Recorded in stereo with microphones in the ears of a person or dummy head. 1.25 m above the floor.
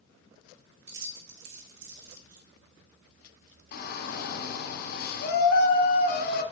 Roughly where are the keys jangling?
Right.